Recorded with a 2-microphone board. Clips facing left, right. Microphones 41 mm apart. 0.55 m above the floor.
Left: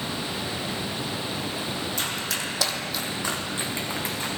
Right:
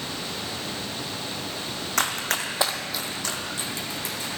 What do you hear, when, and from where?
2.0 s running footsteps: 65° right (ahead or behind), 1.2 m; by 4.3 s 35° left (ahead or behind), 2.5 m